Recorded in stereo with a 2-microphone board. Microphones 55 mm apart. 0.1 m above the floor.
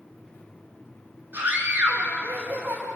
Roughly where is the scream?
Right.